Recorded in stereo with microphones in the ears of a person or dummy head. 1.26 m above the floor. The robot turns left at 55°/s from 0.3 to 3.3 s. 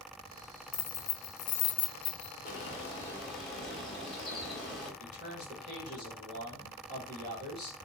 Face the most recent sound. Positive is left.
turn(degrees=-30)  # may be behind; listen again after turning